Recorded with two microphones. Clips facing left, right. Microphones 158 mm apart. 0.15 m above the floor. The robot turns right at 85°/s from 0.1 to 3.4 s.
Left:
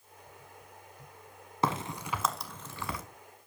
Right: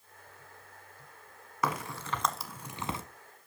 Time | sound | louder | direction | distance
1.6 | a crack | left 2 dB | 25° left (ahead or behind) | 1.2 m